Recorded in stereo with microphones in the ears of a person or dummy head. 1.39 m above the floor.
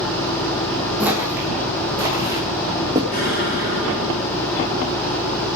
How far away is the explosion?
About 9 m.